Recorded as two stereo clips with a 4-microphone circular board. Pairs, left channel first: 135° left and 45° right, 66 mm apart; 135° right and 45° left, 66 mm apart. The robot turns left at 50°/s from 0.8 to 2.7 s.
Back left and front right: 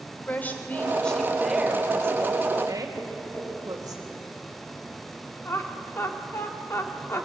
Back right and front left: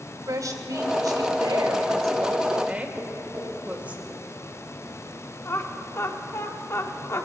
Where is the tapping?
85° left, 6 m.